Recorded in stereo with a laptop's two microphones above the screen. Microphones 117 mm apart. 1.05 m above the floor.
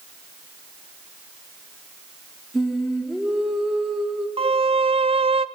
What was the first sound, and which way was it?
Singing, centre (ahead or behind).